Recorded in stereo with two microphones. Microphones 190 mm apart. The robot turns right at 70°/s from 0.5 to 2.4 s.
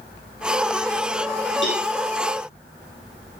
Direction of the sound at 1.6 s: 85° left.